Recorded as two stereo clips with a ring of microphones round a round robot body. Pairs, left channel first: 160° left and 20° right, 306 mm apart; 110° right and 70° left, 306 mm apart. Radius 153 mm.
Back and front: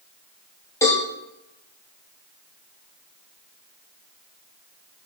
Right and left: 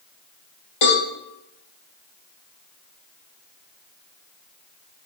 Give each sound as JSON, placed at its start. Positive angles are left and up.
{"t": 0.8, "sound": "a cowbell", "azimuth_deg": -120, "distance_m": 7.5}